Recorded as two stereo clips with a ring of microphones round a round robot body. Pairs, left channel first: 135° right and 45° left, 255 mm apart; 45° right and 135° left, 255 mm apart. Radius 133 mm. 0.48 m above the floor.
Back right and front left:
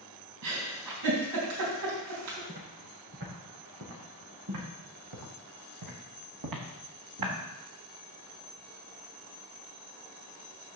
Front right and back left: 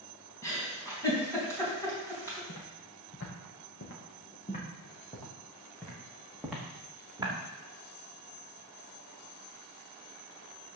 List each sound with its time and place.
0.4 s a giggle: 35° left, 3.5 m
2.5 s footsteps: 10° right, 3.5 m; by 7.3 s 60° left, 3.5 m